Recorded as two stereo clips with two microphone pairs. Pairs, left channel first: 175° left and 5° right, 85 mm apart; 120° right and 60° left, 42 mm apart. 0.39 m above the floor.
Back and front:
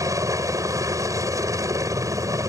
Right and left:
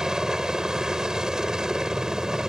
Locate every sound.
0.0 s a helicopter: 10° right